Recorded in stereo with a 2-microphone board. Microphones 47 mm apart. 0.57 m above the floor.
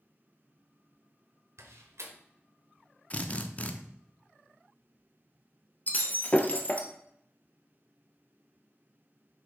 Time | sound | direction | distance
1.6 | a door slam | 75° right (ahead or behind) | 1.1 m
3.1 | a drill | 30° left (ahead or behind) | 0.6 m
5.9 | breaking glass | 35° left (ahead or behind) | 1.0 m